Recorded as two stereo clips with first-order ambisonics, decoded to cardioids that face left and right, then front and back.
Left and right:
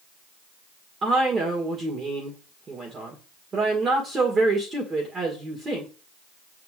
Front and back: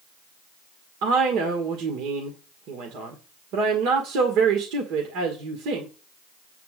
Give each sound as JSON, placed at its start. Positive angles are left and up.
{"t": 1.0, "sound": "a woman speaking", "azimuth_deg": -160, "distance_m": 1.9}